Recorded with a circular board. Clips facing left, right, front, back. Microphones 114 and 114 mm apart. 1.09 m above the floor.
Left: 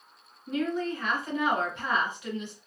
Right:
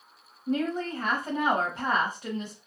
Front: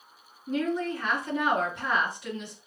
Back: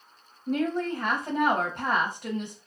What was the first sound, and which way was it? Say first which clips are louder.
A woman speaking: right 1 dB, back 1 dB; 145° right.